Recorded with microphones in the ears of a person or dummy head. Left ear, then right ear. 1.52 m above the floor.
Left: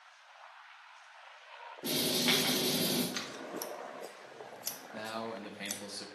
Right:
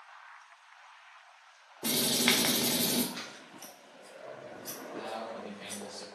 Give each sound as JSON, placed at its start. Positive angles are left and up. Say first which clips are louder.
{"t": 1.8, "sound": "writing", "louder": "right 3 dB", "side_deg": -50, "distance_m": 0.6}
{"t": 3.1, "sound": "scissors", "louder": "left 4 dB", "side_deg": 85, "distance_m": 0.8}
{"t": 4.9, "sound": "a man speaking", "louder": "right 1 dB", "side_deg": 60, "distance_m": 0.7}